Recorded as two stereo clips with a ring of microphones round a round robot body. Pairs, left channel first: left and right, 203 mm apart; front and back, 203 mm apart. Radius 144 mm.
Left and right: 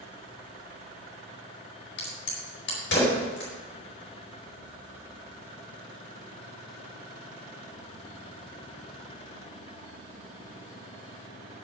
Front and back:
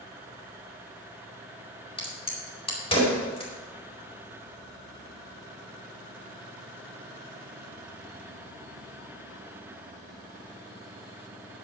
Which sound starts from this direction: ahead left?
A crack, at 2.0 s.